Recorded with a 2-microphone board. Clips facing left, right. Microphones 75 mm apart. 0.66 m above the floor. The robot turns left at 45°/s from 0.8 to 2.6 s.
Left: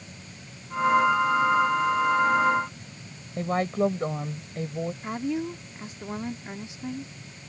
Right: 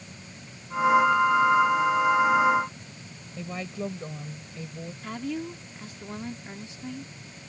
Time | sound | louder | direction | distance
3.4 | a woman speaking | left 10 dB | 60° left (ahead or behind) | ?
5.0 | a woman speaking | left 1 dB | 20° left (ahead or behind) | ?